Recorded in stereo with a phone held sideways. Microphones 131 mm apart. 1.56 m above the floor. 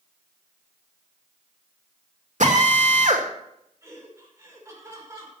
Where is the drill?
65° right (ahead or behind), 2.5 m.